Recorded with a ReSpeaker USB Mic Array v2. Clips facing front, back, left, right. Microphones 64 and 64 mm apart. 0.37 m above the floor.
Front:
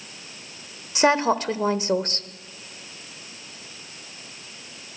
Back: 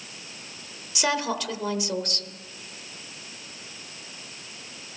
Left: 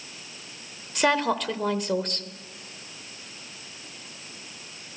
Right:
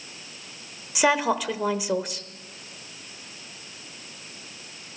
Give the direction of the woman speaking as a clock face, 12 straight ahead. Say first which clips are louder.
Front 7 dB, right 1 dB; 12 o'clock.